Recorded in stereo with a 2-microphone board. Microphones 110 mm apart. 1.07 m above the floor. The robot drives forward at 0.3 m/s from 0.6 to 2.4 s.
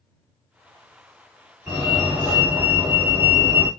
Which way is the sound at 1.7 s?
10° right (ahead or behind).